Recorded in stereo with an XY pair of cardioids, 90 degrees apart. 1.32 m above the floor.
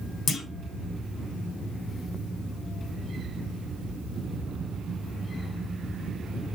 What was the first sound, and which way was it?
A clunk, 70° left.